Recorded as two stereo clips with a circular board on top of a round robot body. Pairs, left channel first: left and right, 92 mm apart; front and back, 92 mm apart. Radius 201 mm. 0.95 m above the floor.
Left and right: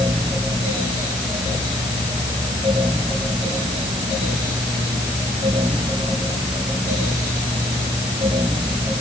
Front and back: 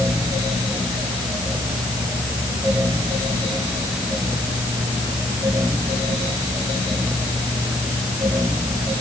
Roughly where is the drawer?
No drawer in this recording.